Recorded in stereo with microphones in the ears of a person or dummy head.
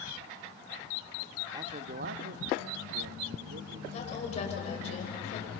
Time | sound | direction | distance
1.5 | a man speaking | 15° right (ahead or behind) | 0.8 m
3.9 | a woman speaking | 40° left (ahead or behind) | 6 m